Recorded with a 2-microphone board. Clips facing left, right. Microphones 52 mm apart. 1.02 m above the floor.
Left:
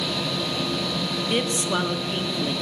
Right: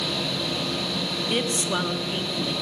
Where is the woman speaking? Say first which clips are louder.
Left 1 dB; 10° left (ahead or behind), 1.8 m.